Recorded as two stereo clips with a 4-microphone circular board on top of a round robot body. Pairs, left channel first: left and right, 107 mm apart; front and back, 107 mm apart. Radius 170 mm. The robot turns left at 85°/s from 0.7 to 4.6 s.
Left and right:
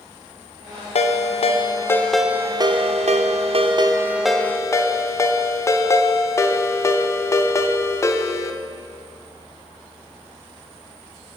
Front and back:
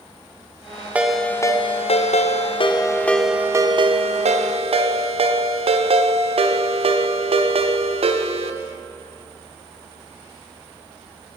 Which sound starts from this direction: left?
A ringtone, at 0.9 s.